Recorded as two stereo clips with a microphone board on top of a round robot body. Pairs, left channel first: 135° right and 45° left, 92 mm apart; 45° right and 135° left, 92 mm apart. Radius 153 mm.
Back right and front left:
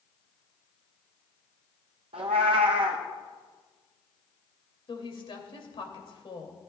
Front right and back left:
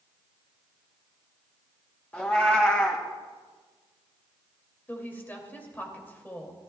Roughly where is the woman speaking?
Behind right.